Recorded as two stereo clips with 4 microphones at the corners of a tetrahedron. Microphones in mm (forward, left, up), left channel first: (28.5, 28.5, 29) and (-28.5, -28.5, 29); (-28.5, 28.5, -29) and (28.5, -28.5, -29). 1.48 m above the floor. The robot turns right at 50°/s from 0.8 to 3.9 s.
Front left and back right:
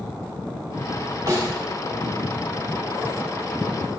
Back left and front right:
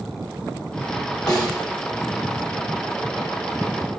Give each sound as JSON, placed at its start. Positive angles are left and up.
{"t": 1.3, "sound": "a snare drum", "azimuth_deg": 175, "distance_m": 1.5}